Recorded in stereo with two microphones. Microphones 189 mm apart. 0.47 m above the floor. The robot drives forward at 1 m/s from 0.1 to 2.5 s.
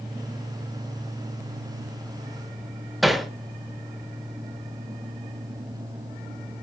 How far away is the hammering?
About 1.0 m.